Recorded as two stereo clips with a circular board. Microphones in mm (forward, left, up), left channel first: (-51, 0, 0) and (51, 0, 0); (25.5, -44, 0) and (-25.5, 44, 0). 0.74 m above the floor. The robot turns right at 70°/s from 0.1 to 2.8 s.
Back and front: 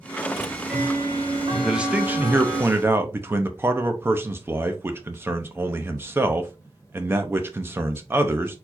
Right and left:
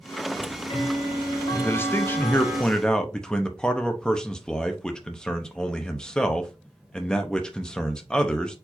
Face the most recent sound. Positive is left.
turn(degrees=10)